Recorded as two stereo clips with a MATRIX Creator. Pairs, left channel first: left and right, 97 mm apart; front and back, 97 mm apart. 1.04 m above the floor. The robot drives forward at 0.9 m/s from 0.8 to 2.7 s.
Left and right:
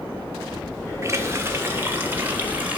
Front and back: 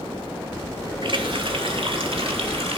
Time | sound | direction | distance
1.0 | a running tap | 150° right | 1.8 m